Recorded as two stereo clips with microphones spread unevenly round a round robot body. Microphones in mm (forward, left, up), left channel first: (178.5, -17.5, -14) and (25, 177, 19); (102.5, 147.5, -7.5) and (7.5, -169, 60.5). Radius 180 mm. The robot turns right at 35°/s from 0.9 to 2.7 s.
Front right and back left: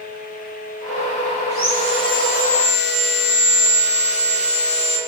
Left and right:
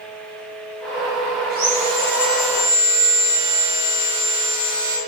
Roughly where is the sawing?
Ahead right.